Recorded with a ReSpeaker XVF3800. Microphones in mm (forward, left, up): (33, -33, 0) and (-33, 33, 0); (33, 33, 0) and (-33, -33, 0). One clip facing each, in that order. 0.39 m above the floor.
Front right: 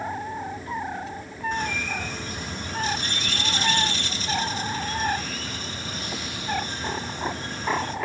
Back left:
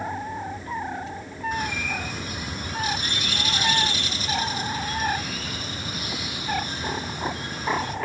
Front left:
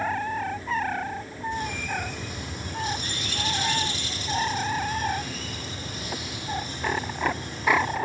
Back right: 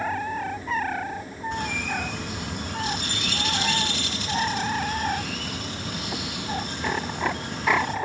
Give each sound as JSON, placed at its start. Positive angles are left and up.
{"t": 1.5, "sound": "a bird", "azimuth_deg": -145, "distance_m": 4.5}